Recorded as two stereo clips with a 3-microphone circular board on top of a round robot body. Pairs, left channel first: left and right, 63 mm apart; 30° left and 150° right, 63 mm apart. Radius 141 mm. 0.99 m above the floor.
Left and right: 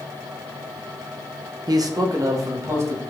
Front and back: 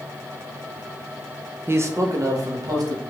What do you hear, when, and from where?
1.7 s a man speaking: 95° right, 0.6 m; by 3.0 s 130° right, 1.5 m